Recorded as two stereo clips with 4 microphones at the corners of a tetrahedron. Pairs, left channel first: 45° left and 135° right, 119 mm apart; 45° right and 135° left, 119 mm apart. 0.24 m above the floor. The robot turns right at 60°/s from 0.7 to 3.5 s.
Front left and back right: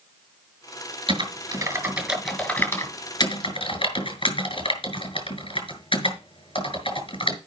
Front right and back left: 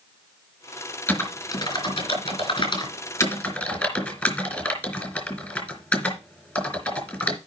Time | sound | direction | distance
1.1 | typing on a keyboard | 120° right | 2.5 m